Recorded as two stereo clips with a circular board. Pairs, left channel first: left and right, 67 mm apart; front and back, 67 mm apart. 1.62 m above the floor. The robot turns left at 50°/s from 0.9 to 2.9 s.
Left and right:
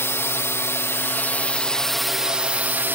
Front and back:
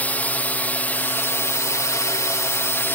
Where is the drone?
55° left; by 3.0 s 45° right.